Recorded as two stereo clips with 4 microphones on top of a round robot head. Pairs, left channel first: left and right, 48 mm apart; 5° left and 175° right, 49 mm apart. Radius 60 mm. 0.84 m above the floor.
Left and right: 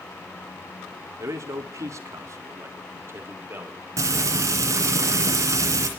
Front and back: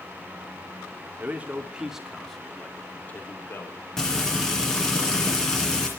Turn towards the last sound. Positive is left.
turn(degrees=-75)